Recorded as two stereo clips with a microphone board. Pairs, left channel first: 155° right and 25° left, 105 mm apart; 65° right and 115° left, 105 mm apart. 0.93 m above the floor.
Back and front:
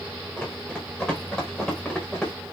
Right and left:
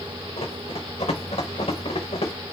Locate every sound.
0.4 s running footsteps: 75° right, 5 m; by 2.3 s 70° right, 6.5 m